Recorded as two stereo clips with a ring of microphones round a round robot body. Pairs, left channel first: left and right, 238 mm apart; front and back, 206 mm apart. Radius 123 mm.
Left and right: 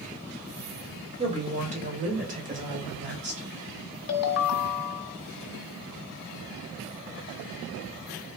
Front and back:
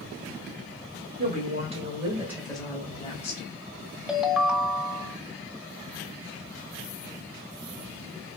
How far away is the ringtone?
About 0.6 m.